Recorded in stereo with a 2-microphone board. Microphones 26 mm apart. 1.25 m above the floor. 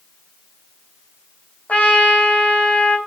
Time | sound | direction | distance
1.7 | a trumpet | 50° left (ahead or behind) | 3 m